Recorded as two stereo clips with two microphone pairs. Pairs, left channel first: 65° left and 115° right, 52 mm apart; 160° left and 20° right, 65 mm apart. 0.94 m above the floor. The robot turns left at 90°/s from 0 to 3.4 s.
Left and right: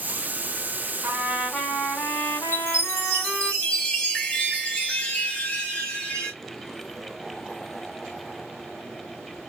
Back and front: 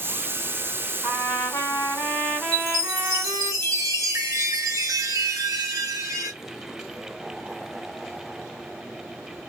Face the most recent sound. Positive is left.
turn(degrees=0)